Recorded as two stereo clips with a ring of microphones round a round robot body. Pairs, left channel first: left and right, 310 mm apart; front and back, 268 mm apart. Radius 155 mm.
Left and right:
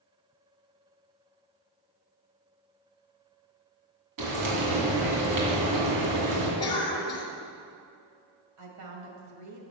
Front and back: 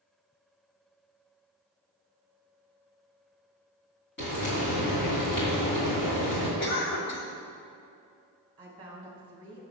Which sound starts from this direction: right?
A woman speaking, at 8.6 s.